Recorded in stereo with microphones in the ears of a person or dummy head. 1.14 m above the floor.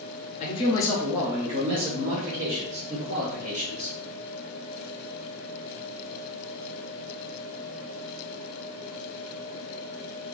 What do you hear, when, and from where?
0.4 s a man speaking: 35° left (ahead or behind), 0.6 m; by 3.9 s 60° right (ahead or behind), 1.6 m